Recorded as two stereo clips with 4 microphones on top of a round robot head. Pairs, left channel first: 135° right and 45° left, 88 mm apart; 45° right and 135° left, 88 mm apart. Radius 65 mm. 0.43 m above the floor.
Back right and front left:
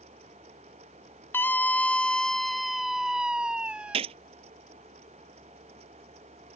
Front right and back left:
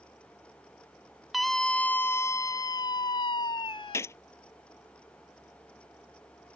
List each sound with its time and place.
1.3 s a scream: 135° right; by 4.0 s 35° right
3.9 s a gunshot: 20° left